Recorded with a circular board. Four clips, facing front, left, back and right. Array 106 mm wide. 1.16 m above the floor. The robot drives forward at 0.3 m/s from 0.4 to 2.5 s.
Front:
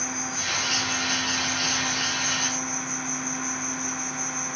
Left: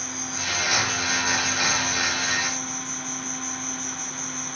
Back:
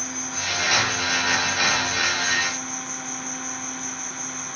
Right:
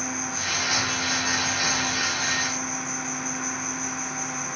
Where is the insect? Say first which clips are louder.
Right 3 dB, even; 60° left, 1.3 m; by 4.6 s 125° left, 1.3 m.